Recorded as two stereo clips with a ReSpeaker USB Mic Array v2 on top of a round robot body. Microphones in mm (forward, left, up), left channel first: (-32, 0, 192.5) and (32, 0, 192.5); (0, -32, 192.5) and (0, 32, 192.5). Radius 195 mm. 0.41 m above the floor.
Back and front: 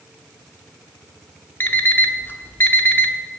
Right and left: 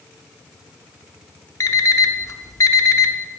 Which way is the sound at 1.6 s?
125° right.